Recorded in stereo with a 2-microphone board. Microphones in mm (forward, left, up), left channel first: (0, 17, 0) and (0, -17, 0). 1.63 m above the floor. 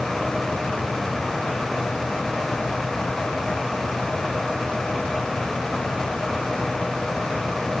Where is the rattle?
No rattle in this recording.